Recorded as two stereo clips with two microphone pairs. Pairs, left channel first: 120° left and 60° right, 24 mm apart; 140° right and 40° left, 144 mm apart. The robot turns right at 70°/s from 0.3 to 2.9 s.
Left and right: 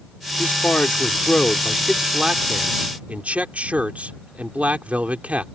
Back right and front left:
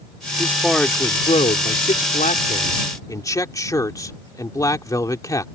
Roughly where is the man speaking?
Left.